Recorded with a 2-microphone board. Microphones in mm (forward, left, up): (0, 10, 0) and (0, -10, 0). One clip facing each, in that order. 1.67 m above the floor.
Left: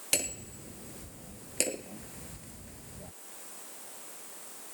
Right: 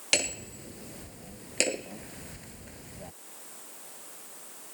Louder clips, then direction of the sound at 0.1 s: Right 6 dB; 30° right (ahead or behind).